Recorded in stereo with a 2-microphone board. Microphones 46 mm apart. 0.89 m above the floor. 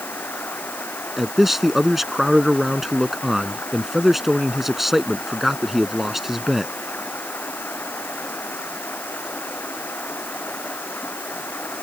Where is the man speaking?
5° right (ahead or behind).